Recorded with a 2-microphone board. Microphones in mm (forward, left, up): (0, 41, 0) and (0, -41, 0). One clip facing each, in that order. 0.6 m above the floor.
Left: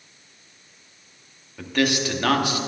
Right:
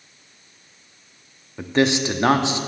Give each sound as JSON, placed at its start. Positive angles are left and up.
{"t": 1.6, "sound": "a man speaking", "side_deg": -25, "distance_m": 0.7}